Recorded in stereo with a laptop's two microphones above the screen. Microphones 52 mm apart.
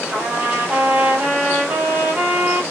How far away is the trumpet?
About 1.6 m.